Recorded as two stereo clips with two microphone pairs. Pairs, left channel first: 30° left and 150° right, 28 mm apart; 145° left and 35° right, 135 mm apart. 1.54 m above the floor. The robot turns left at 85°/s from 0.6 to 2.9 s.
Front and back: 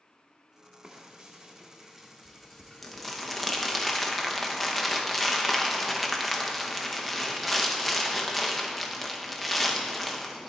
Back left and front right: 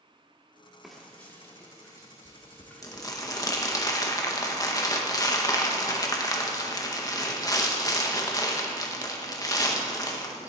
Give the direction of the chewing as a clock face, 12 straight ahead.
No chewing in this recording.